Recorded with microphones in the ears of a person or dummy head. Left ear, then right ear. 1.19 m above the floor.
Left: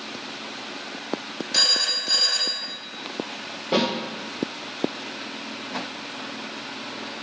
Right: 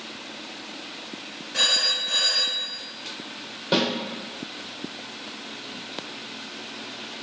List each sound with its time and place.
1.5 s a phone ringing: 65° left (ahead or behind), 1.0 m
3.7 s a snare drum: 50° right (ahead or behind), 1.1 m